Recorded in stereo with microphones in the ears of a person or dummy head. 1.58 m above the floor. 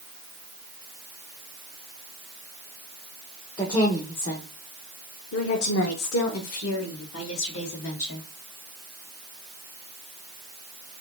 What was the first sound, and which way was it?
A woman speaking, 15° left (ahead or behind).